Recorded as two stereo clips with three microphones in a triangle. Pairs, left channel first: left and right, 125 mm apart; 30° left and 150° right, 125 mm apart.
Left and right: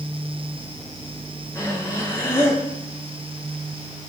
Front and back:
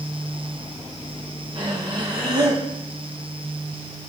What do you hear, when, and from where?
1.6 s breathing: 160° left, 5.5 m